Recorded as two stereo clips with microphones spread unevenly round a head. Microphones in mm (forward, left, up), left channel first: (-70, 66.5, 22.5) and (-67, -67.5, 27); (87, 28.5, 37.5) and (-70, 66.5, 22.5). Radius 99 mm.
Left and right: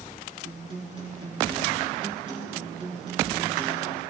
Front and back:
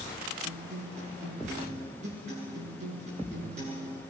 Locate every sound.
0.4 s a guitar: 140° right, 9.5 m